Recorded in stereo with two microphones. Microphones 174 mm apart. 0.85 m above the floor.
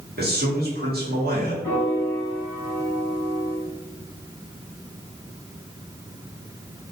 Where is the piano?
15° left (ahead or behind), 1.9 m.